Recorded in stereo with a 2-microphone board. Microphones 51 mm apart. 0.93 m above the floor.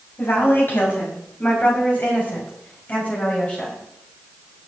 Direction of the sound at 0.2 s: 45° left (ahead or behind).